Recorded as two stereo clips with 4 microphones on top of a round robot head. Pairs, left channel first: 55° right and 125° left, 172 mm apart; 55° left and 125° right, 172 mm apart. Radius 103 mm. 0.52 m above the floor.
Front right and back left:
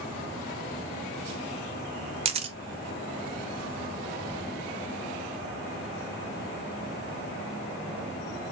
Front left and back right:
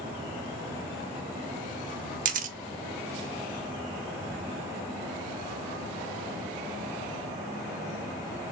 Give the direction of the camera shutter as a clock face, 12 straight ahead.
6 o'clock.